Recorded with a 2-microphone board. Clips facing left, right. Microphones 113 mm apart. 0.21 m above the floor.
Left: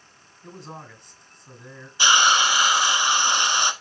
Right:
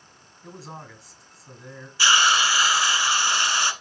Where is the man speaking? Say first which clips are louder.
Even; 5° right (ahead or behind), 1.6 m.